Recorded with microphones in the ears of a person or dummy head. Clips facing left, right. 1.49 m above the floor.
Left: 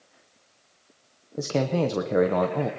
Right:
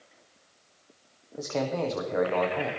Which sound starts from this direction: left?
A man speaking, at 1.4 s.